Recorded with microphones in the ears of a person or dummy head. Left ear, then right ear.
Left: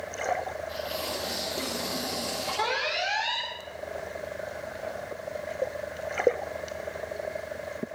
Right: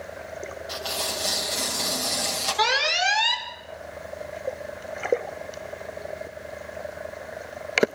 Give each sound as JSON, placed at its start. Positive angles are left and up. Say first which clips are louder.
{"t": 0.7, "sound": "tearing paper", "louder": "right 3 dB", "side_deg": -45, "distance_m": 6.5}
{"t": 2.6, "sound": "an alarm", "louder": "right 7 dB", "side_deg": -55, "distance_m": 4.0}